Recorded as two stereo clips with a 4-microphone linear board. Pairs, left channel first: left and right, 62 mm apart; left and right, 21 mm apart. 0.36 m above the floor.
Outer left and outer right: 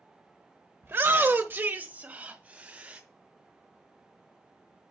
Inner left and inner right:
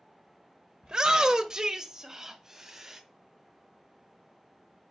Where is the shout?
35° right (ahead or behind), 1.0 m; by 3.0 s 20° right (ahead or behind), 2.5 m.